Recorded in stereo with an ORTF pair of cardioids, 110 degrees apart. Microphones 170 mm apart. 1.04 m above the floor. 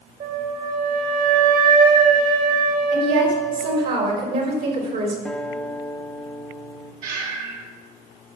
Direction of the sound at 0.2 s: 65° right.